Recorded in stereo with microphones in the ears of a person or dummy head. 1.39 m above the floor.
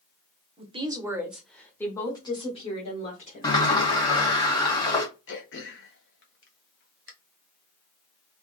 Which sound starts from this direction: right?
A woman speaking, at 0.6 s.